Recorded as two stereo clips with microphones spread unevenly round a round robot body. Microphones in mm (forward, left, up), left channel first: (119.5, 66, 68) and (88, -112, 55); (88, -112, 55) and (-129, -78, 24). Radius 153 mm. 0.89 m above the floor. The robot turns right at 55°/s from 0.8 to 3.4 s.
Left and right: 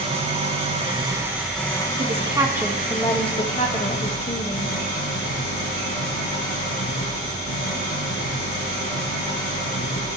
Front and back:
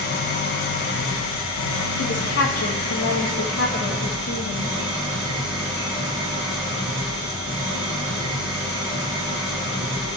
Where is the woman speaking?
50° right, 2.5 m; by 4.8 s 25° left, 2.5 m.